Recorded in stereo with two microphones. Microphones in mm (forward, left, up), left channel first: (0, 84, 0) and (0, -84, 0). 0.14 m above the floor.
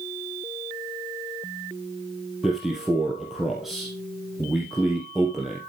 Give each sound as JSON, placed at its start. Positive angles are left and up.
{"t": 2.4, "sound": "a man speaking", "side_deg": 0, "distance_m": 2.5}